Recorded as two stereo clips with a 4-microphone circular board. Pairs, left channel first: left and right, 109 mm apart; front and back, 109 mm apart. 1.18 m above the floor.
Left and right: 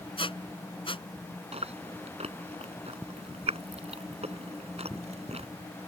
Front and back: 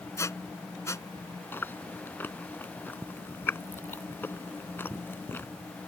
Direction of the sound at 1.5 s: 70° right.